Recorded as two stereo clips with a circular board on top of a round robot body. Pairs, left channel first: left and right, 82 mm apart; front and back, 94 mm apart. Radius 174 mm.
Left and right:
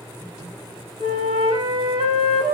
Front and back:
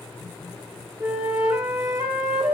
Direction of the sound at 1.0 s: 120° right.